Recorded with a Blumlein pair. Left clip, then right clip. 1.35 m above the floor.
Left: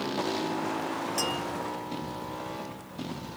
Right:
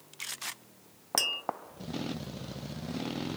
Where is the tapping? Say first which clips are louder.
Right 2 dB; 45° right, 0.7 m.